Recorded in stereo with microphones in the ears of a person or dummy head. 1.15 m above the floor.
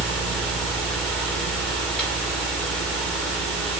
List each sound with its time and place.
0.0 s a fan: 5° left (ahead or behind), 2 m